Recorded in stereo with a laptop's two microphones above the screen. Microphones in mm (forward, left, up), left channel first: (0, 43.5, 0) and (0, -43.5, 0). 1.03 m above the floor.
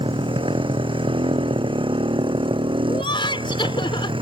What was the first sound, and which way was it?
A motorcycle, 80° right.